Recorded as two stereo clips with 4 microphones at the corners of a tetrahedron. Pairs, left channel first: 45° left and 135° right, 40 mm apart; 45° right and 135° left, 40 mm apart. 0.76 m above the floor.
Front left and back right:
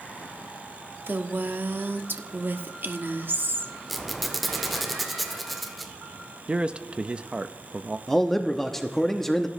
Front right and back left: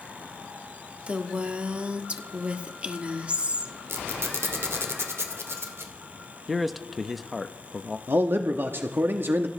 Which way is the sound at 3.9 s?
135° left.